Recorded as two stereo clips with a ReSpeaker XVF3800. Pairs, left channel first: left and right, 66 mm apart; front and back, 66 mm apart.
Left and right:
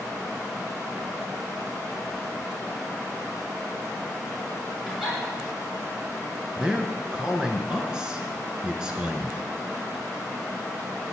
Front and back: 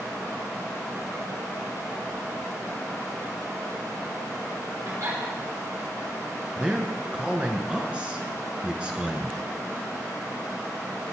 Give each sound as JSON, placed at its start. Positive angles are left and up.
{"t": 4.8, "sound": "a giggle", "azimuth_deg": 180, "distance_m": 4.5}
{"t": 6.6, "sound": "a man speaking", "azimuth_deg": -145, "distance_m": 1.1}